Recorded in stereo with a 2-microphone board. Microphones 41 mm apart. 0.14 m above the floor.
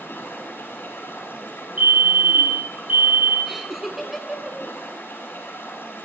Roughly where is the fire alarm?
Right.